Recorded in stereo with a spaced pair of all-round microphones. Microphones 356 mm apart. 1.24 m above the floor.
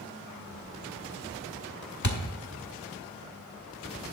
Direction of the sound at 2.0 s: 55° left (ahead or behind).